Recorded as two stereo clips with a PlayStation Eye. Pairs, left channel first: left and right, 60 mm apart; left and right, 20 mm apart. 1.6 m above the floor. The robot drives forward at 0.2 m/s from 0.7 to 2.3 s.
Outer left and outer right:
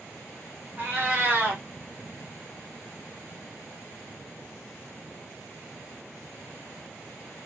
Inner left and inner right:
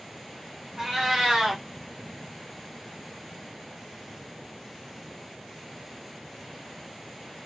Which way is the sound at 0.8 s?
35° right (ahead or behind).